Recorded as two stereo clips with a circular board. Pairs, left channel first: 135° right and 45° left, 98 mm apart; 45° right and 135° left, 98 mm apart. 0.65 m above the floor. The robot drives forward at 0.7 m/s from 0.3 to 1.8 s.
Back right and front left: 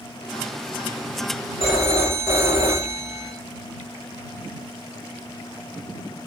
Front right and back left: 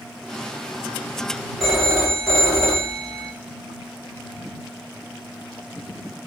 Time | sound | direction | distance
1.6 | a phone ringing | 130° right | 2.5 m